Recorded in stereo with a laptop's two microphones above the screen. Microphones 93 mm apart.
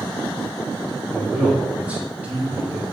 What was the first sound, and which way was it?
A man speaking, 10° right (ahead or behind).